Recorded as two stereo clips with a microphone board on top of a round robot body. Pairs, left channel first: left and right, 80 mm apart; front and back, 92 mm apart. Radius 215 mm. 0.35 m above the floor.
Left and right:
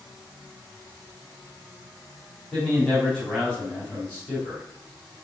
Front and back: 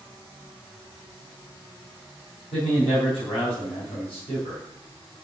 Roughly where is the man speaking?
Ahead.